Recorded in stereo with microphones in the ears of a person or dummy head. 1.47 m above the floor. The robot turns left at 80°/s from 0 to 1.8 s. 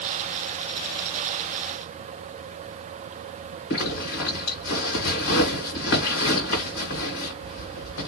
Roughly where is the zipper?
Left.